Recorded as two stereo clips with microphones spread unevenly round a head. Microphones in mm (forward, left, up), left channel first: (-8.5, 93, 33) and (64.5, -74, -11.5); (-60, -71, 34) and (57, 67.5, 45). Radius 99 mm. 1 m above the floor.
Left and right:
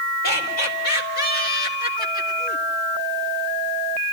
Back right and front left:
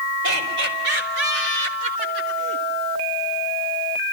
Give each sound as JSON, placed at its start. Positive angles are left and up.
{"t": 0.2, "sound": "laughter", "azimuth_deg": 75, "distance_m": 5.0}